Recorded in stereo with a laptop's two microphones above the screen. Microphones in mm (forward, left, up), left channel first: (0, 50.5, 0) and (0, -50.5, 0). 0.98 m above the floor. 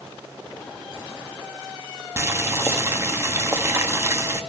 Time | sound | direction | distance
2.2 | boiling | 25° right (ahead or behind) | 1.1 m